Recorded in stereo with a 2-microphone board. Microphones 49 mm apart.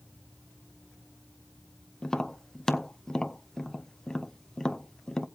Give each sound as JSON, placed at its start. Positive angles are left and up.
{"t": 2.0, "sound": "tapping", "side_deg": 15, "distance_m": 0.5}